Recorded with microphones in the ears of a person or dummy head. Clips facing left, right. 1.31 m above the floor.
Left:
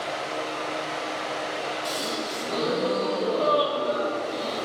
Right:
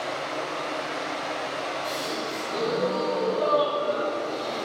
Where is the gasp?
35° left (ahead or behind), 1.6 m.